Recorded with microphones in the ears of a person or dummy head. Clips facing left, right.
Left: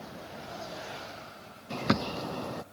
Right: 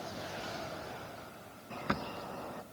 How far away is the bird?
About 0.7 m.